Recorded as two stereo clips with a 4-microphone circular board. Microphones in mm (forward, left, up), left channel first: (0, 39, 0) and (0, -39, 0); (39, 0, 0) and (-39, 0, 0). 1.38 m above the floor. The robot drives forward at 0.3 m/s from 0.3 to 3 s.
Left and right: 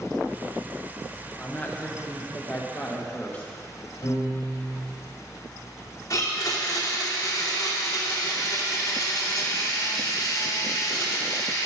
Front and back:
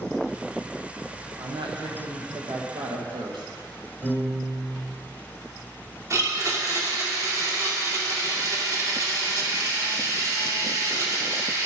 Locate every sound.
1.4 s a woman speaking: 160° left, 1.2 m; by 3.5 s 165° left, 1.7 m
4.0 s a piano: 115° left, 3 m
6.1 s a blender: 135° left, 2.5 m